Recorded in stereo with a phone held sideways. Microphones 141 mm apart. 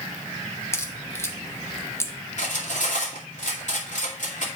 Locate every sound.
0.7 s a crack: 20° left (ahead or behind), 0.9 m
2.4 s cutlery clinking: 65° left (ahead or behind), 2.5 m